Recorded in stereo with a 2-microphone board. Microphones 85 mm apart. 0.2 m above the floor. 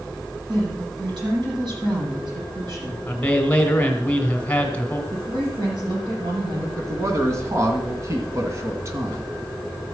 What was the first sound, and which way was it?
A woman speaking, 65° right (ahead or behind).